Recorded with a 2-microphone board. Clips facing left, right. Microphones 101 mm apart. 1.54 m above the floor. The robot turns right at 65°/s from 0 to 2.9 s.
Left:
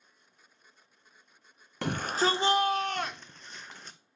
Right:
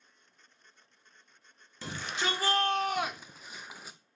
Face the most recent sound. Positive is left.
turn(degrees=-175)